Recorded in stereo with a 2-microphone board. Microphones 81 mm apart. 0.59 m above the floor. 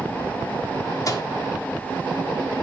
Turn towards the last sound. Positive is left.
turn(degrees=45)  # may be behind; listen again after turning